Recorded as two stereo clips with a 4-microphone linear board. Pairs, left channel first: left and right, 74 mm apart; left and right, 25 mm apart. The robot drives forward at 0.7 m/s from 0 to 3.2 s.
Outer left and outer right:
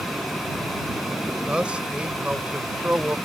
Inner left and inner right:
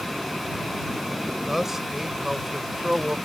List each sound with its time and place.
1.5 s a man speaking: 15° right (ahead or behind)